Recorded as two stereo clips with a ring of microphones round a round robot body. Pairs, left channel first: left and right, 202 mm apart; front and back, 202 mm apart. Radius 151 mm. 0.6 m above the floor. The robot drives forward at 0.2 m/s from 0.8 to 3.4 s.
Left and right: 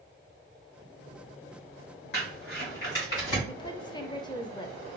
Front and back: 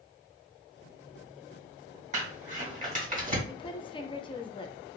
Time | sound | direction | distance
2.1 | crumpling | 130° left | 2 m
3.5 | a woman speaking | 40° left | 0.6 m